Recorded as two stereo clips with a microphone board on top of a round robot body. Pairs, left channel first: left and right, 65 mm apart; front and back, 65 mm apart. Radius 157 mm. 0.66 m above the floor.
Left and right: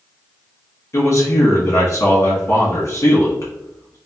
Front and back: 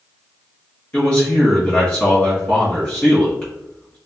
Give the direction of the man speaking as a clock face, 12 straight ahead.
10 o'clock.